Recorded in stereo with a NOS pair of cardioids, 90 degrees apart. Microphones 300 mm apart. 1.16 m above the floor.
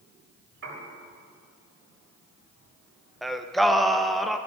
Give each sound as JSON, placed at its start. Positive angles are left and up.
{"t": 0.6, "sound": "a piano", "azimuth_deg": -45, "distance_m": 3.0}
{"t": 3.2, "sound": "singing", "azimuth_deg": 0, "distance_m": 0.6}